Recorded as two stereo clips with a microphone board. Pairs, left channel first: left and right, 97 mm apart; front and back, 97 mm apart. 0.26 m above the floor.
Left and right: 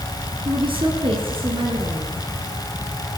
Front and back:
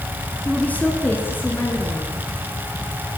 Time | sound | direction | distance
0.5 | a woman speaking | 75° right | 3 m